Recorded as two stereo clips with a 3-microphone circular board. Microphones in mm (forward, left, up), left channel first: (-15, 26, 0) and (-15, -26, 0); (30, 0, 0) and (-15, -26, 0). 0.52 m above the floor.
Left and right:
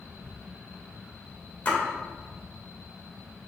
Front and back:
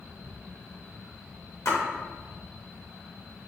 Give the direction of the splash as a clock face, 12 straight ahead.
11 o'clock.